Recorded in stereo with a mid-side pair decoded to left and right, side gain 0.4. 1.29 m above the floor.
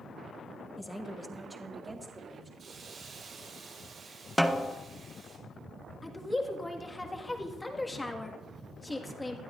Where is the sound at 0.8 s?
10° left, 1.8 m; by 2.5 s 35° right, 3 m.